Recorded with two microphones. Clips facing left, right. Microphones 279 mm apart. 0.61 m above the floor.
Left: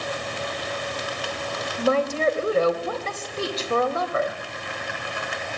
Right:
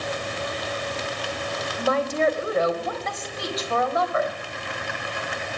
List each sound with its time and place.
1.8 s a woman speaking: 35° left (ahead or behind), 3.5 m